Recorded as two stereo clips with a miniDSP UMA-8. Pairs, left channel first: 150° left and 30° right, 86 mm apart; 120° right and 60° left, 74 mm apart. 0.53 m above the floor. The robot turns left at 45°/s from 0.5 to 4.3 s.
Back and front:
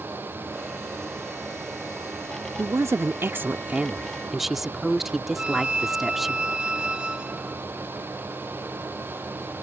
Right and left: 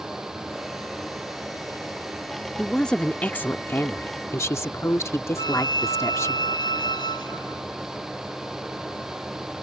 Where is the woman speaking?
40° right; by 6.4 s 115° right.